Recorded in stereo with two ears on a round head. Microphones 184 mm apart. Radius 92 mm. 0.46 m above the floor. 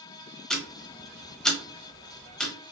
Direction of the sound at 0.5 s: 5° left (ahead or behind).